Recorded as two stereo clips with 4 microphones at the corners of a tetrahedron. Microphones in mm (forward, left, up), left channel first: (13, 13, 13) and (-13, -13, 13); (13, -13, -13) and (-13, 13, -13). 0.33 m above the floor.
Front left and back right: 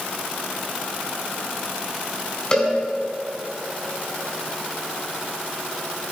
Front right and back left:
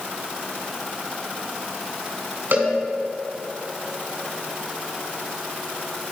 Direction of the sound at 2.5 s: 110° left.